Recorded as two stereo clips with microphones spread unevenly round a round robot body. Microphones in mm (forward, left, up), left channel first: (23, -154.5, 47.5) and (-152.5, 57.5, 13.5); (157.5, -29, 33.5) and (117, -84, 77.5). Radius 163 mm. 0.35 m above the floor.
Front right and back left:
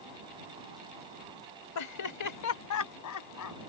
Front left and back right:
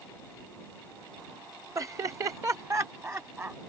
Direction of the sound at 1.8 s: 70° right.